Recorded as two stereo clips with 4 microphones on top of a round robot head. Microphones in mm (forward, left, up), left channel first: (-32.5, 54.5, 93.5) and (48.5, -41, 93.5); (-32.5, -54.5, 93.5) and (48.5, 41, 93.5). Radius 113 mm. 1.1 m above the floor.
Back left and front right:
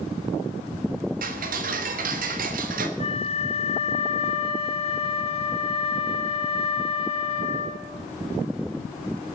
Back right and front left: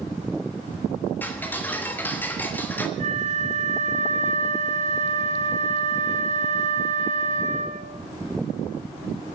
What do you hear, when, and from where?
1.2 s ticking: 55° right, 1.3 m
3.0 s a flute: 85° left, 1.7 m